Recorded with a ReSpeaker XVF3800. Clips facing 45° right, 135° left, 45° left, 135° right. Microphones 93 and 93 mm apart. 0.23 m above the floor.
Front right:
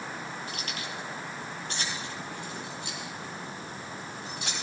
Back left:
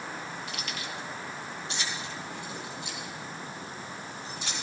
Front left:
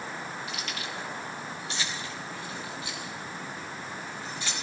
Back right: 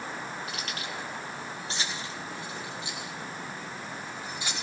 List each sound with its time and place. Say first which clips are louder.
0.5 s keys jangling: even, even; 95° right, 4 m; by 4.5 s 65° right, 6 m